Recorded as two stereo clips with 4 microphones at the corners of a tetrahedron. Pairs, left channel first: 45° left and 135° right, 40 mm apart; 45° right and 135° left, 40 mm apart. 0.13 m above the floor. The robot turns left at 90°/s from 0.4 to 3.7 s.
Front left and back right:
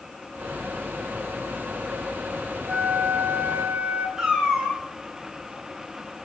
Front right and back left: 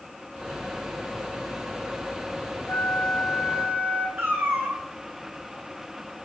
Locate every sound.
2.7 s a flute: 85° right, 0.7 m; by 4.1 s 175° right, 0.7 m
4.2 s a cat meowing: 145° left, 1.8 m